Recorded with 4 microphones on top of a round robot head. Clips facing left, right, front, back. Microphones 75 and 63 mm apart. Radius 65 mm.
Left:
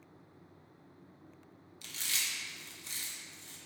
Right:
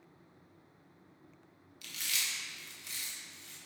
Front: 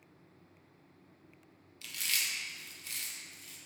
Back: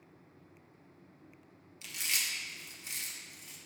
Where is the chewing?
125° left, 1.6 m.